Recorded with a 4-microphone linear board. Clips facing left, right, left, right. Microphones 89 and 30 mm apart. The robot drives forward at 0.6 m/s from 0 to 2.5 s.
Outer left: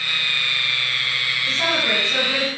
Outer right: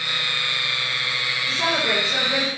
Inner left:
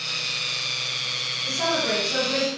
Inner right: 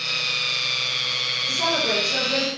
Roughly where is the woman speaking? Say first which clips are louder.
Even, inner right 1 dB; left.